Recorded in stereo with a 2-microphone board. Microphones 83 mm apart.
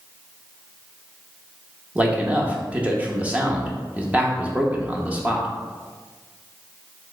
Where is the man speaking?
15° right (ahead or behind), 0.7 m.